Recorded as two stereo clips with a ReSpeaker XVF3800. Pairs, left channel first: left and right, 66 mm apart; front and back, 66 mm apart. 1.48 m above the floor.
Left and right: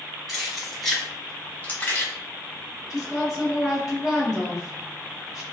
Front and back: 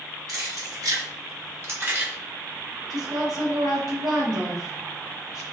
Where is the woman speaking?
175° right, 1.9 m.